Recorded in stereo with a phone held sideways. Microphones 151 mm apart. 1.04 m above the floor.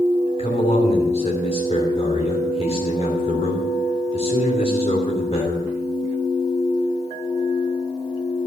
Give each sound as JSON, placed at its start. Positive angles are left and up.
{"t": 0.4, "sound": "a man speaking", "side_deg": 45, "distance_m": 2.5}